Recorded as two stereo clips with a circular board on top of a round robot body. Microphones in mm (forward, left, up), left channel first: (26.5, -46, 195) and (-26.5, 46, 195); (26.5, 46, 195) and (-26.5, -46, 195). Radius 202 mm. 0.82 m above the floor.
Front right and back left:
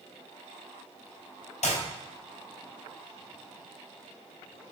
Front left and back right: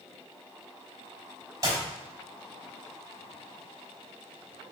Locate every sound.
1.6 s a clap: 60° right, 3.5 m